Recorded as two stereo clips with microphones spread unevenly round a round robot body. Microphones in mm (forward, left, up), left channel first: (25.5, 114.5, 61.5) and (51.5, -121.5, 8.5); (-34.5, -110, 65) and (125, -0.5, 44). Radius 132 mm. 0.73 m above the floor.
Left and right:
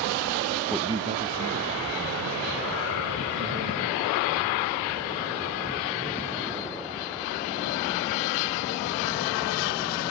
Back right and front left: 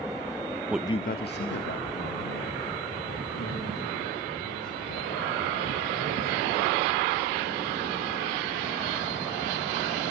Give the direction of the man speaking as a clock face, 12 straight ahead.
12 o'clock.